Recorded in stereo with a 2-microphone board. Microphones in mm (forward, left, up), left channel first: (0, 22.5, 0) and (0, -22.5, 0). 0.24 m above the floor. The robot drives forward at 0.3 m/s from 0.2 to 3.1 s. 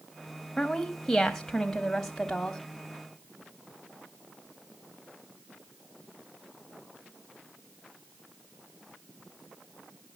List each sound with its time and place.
0.6 s a woman speaking: 10° left (ahead or behind), 1.0 m